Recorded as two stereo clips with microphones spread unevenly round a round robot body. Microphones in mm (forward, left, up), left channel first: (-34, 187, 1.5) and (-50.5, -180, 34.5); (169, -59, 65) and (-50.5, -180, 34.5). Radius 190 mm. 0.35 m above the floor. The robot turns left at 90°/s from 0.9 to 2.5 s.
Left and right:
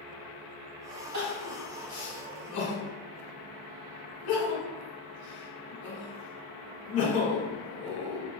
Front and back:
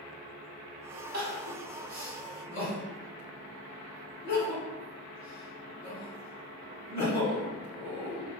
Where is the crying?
135° right, 1.7 m; by 8.3 s 105° left, 1.7 m.